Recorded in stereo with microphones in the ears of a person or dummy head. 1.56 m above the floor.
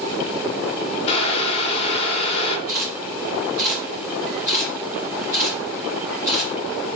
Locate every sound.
1.1 s boiling: 40° left (ahead or behind), 0.7 m
2.7 s a camera shutter: 20° right (ahead or behind), 1.6 m